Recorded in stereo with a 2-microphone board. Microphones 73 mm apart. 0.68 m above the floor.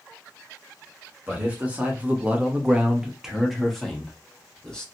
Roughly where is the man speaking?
Centre.